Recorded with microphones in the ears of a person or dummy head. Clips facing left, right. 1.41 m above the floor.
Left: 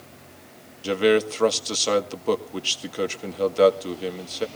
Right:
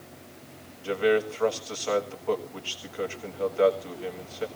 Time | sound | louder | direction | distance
0.8 | a man speaking | left 4 dB | 50° left (ahead or behind) | 1.8 m